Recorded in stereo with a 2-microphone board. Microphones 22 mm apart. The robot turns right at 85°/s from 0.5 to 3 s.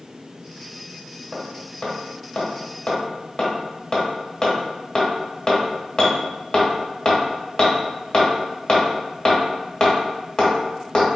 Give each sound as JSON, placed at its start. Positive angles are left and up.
{"t": 1.3, "sound": "hammering", "side_deg": -5, "distance_m": 1.1}